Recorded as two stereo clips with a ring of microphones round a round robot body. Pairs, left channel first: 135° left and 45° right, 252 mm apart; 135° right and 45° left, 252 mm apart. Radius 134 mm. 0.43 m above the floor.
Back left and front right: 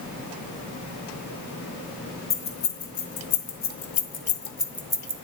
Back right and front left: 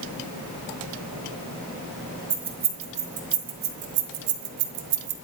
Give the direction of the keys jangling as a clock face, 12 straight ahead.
8 o'clock.